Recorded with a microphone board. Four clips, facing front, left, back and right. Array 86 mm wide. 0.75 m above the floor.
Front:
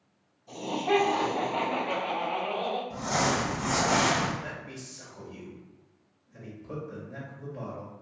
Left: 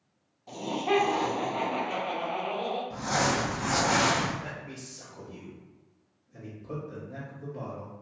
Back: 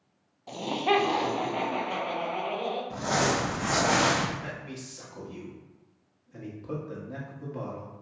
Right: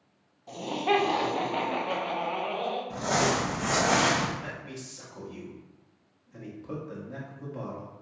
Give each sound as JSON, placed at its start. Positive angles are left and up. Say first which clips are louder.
{"t": 0.5, "sound": "laughter", "louder": "right 1 dB, back 1 dB", "azimuth_deg": 180, "distance_m": 0.8}
{"t": 2.9, "sound": "crumpling", "louder": "right 2 dB, back 2 dB", "azimuth_deg": -135, "distance_m": 1.0}
{"t": 4.4, "sound": "a man speaking", "louder": "right 1 dB, back 1 dB", "azimuth_deg": -140, "distance_m": 1.3}